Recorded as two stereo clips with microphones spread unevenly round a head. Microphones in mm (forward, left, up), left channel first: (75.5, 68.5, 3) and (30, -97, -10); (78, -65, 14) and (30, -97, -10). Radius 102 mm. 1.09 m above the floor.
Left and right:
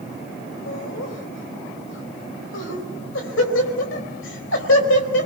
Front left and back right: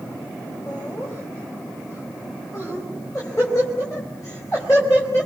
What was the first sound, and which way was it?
Laughter, 110° left.